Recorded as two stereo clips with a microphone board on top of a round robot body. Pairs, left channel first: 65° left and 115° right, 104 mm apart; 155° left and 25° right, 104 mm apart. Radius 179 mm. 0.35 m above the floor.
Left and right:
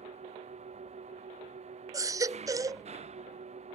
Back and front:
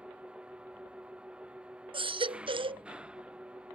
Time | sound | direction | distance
0.0 | an engine running | 105° right | ?
1.9 | a baby crying | 55° right | ?